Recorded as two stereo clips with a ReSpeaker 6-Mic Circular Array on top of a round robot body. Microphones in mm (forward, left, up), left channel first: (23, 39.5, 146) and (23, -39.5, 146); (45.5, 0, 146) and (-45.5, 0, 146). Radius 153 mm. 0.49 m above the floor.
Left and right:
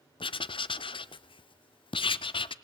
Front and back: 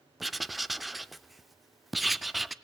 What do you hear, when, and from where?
0.2 s writing: 90° left, 0.5 m